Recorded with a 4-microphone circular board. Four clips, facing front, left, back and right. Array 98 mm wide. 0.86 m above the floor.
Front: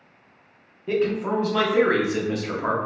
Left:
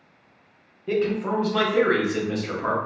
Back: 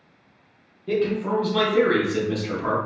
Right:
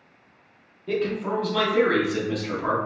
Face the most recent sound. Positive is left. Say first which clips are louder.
# left 2 dB, even
turn(degrees=30)